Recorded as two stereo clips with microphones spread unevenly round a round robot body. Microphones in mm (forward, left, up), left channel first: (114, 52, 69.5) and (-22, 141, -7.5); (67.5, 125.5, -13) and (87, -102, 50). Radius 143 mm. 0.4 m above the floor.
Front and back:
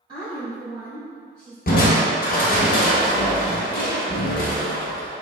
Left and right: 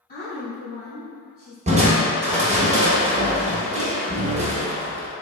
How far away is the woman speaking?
About 1.7 m.